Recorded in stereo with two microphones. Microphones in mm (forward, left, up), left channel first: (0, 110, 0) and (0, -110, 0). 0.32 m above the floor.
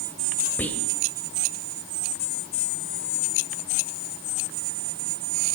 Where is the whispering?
5° left (ahead or behind), 1.2 m.